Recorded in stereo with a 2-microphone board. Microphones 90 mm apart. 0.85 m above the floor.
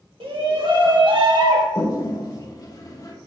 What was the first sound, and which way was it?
A shout, 70° right (ahead or behind).